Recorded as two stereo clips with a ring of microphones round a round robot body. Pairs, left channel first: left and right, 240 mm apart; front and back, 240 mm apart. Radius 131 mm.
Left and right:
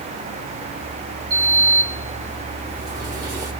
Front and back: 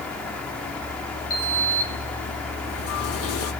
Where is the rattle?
I don't hear a rattle.